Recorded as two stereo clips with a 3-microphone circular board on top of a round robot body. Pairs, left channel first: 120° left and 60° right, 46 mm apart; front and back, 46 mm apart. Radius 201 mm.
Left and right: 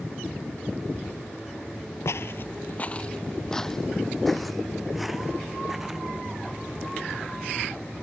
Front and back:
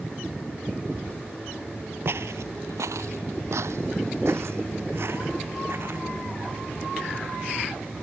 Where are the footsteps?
145° left; by 6.0 s 145° right.